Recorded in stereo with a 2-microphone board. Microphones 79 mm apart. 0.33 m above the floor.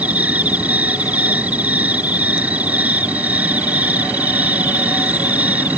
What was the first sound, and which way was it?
An insect, 20° right (ahead or behind).